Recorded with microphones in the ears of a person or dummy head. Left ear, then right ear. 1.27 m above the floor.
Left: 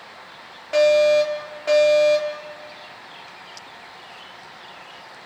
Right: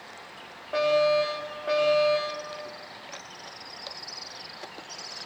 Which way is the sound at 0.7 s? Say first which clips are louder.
Left 7 dB; 75° left (ahead or behind).